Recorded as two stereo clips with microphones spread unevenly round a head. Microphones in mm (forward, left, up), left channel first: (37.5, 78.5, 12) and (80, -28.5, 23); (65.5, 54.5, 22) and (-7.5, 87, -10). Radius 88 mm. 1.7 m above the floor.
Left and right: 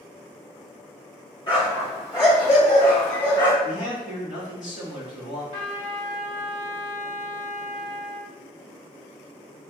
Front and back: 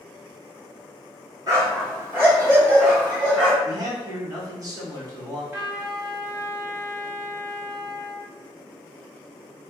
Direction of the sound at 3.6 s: 105° left.